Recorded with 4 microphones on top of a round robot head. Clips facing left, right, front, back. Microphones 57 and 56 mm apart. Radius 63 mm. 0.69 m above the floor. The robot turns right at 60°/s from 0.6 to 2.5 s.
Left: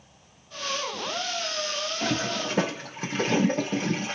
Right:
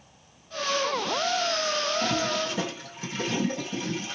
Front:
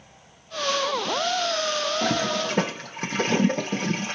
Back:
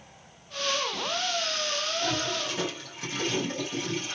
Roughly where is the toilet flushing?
Ahead.